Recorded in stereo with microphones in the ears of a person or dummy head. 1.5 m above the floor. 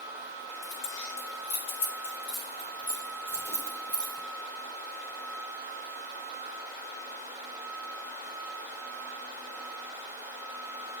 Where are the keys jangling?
75° left (ahead or behind), 4 m; by 4.2 s 5° left (ahead or behind), 4 m.